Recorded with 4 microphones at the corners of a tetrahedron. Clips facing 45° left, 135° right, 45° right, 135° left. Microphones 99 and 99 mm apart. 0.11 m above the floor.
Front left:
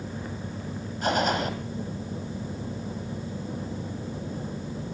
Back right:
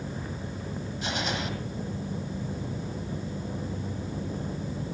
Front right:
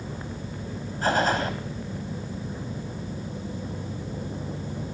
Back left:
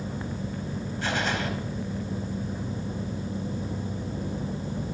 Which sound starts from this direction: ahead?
A gunshot, at 1.0 s.